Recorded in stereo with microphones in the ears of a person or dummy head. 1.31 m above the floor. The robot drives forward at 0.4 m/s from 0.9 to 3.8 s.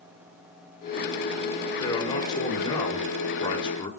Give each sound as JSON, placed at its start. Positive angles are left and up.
{"t": 1.8, "sound": "a man speaking", "side_deg": 25, "distance_m": 5.0}